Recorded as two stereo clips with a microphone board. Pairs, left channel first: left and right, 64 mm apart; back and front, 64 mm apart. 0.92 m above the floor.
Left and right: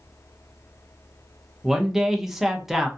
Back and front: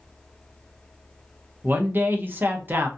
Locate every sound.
1.6 s a man speaking: 5° right, 0.5 m